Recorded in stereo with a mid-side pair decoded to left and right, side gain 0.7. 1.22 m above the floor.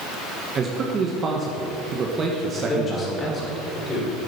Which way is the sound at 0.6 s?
35° right.